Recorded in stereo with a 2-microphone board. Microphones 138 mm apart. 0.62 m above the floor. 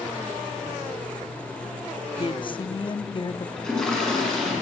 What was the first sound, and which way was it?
A woman speaking, 35° left (ahead or behind).